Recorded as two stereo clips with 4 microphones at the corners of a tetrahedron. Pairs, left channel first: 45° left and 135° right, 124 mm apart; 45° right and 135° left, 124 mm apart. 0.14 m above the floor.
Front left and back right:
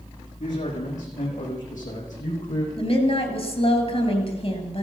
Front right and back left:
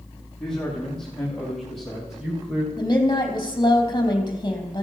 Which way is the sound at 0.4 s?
40° left.